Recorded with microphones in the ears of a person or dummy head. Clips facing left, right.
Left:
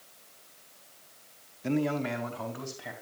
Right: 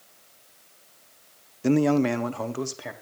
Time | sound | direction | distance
1.6 | a man speaking | 55° right (ahead or behind) | 0.6 m